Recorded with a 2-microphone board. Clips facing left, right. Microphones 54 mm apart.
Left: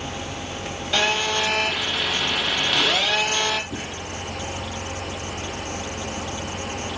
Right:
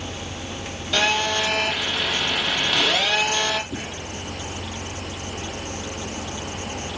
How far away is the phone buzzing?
About 6.5 m.